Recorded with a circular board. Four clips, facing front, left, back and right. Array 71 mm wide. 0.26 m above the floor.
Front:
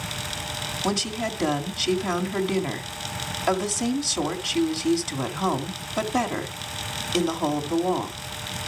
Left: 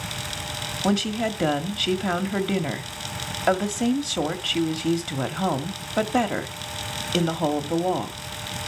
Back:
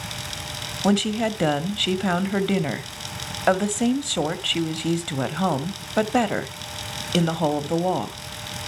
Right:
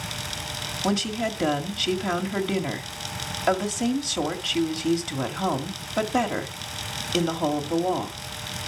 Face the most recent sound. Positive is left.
turn(degrees=165)